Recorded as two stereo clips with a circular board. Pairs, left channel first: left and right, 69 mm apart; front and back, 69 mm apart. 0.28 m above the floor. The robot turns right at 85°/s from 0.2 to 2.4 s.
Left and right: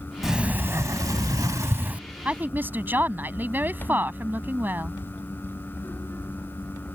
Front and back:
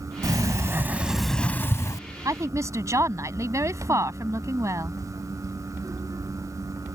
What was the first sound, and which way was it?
A sliding door, 175° right.